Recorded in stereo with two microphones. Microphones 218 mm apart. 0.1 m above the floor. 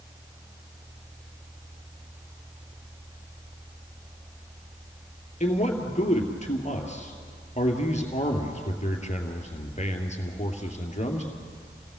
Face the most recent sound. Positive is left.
turn(degrees=35)  # may be behind; listen again after turning